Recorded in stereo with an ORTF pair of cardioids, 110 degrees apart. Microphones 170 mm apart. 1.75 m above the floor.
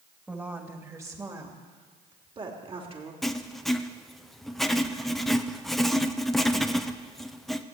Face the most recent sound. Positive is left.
turn(degrees=0)